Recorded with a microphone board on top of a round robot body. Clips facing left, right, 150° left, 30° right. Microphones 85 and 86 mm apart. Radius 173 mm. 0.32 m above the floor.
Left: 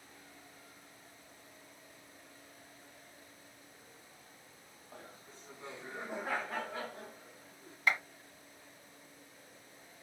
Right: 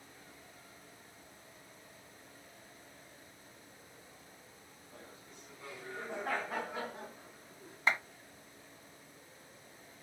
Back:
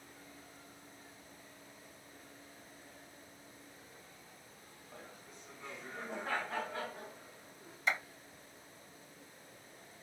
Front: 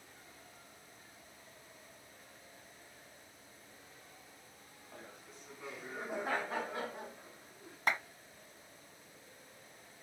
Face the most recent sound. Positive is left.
turn(degrees=-30)